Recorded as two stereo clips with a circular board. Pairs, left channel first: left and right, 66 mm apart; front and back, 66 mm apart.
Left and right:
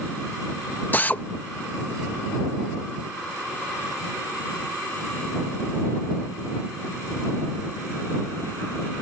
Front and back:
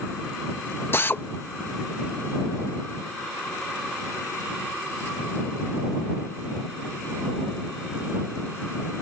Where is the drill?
35° left.